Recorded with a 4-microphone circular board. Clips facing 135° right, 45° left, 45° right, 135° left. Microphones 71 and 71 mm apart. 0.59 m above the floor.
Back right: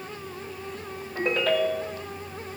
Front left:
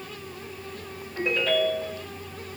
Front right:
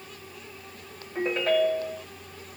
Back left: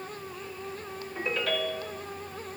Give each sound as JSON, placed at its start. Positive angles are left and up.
{"t": 1.1, "sound": "a ringtone", "azimuth_deg": -100, "distance_m": 1.6}